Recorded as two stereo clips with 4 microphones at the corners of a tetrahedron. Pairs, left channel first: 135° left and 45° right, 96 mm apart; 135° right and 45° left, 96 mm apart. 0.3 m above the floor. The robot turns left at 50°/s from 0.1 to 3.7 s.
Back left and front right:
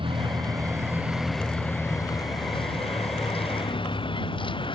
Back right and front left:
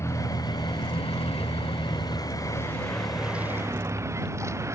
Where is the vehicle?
75° right; by 4.8 s 105° left.